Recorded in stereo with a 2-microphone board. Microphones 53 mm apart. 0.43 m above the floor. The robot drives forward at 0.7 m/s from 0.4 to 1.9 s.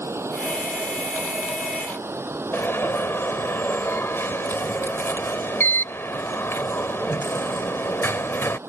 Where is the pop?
No pop in this recording.